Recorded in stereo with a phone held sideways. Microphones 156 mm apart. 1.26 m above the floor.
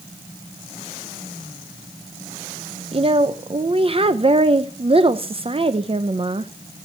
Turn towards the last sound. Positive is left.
turn(degrees=-40)  # may be behind; listen again after turning